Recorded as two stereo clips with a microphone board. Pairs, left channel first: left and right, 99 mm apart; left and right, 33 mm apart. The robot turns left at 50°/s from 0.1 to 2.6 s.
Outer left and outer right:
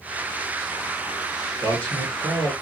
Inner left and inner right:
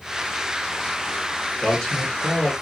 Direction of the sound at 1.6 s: 165° left.